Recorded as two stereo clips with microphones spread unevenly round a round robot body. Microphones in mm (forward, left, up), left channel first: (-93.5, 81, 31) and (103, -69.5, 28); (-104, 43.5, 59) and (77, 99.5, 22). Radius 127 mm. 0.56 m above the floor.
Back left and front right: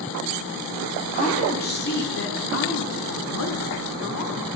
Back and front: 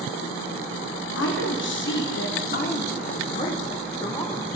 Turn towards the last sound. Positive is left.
turn(degrees=125)